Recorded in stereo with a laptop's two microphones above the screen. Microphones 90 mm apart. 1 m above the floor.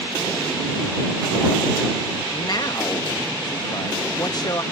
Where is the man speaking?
50° left (ahead or behind).